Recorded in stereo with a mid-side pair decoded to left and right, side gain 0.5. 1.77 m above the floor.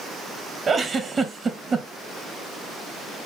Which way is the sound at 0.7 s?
35° right.